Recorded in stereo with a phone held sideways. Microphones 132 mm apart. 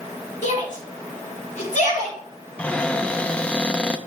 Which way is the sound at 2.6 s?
10° left (ahead or behind).